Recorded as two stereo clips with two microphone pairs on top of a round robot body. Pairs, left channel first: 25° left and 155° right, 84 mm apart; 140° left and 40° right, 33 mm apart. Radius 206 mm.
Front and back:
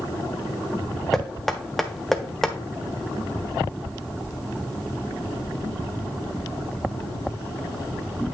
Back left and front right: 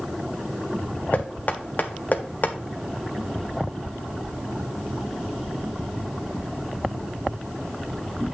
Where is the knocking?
110° left, 1.4 m.